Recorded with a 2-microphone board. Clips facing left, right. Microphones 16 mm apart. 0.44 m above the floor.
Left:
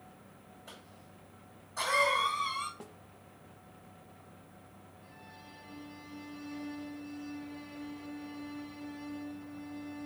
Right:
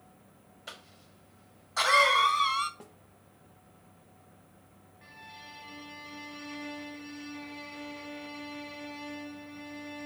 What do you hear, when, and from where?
0.7 s a cough: 65° right (ahead or behind), 1.7 m
2.8 s a snare drum: 5° left (ahead or behind), 0.6 m
5.0 s a violin: 60° right (ahead or behind), 1.9 m